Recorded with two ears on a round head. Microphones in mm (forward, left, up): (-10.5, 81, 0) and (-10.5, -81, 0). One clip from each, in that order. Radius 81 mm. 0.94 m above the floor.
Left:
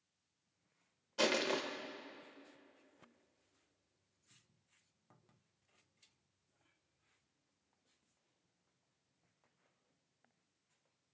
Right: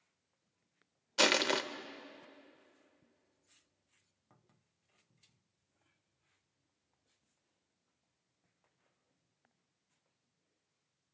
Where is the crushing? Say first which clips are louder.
Right 5 dB; 45° right (ahead or behind), 0.9 m.